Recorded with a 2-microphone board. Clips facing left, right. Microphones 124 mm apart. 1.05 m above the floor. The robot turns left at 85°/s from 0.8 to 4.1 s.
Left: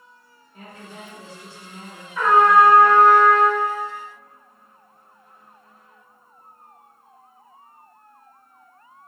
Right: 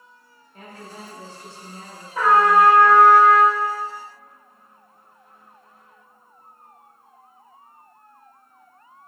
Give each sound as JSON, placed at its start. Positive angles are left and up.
{"t": 0.5, "sound": "a woman speaking", "azimuth_deg": 175, "distance_m": 1.6}
{"t": 2.1, "sound": "a trumpet", "azimuth_deg": -45, "distance_m": 1.3}